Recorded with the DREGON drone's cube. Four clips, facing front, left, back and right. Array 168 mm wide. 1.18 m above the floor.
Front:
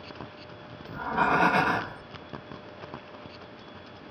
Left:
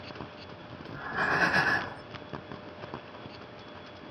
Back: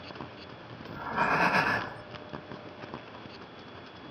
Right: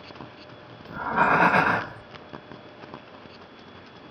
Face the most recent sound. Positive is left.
turn(degrees=-85)